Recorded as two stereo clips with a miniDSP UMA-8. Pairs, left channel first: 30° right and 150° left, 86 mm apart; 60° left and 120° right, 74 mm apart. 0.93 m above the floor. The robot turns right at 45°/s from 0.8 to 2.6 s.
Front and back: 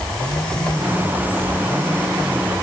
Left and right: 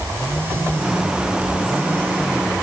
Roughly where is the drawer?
No drawer in this recording.